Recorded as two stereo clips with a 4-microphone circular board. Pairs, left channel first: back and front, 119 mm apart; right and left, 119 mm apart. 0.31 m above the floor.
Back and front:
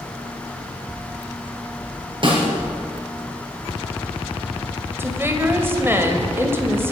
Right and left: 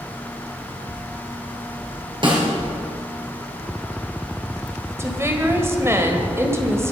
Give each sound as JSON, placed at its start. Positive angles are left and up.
{"t": 2.2, "sound": "a snare drum", "azimuth_deg": 45, "distance_m": 3.0}
{"t": 5.0, "sound": "a woman speaking", "azimuth_deg": 50, "distance_m": 1.5}